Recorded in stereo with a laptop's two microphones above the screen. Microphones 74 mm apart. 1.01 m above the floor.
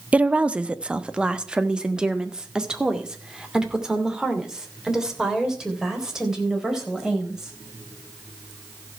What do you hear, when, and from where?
0.1 s a woman speaking: 20° right (ahead or behind), 0.7 m; by 7.5 s 10° right (ahead or behind), 4.5 m